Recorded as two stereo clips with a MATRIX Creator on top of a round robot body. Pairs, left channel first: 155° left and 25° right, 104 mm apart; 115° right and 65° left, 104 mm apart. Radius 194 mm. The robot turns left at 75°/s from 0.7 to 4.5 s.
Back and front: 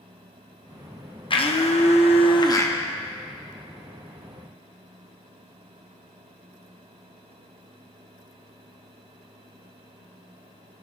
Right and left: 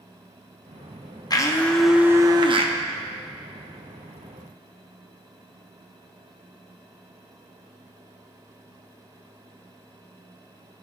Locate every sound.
1.3 s a blender: 165° right, 1.2 m; by 2.7 s 90° left, 1.2 m